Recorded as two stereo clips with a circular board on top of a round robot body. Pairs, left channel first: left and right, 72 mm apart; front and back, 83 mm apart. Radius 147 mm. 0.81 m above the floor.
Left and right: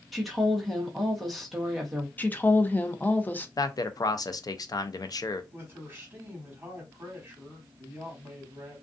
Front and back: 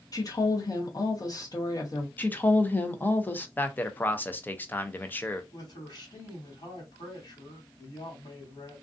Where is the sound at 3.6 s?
65° left, 0.6 m.